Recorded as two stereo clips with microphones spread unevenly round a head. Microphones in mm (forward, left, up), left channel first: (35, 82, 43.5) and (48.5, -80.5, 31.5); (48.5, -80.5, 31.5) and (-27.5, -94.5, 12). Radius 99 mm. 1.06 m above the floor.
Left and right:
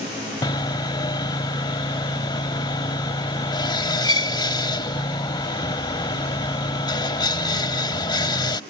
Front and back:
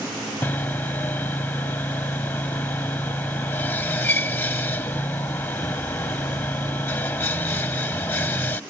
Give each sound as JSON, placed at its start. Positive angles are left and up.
{"t": 0.4, "sound": "sawing", "azimuth_deg": 50}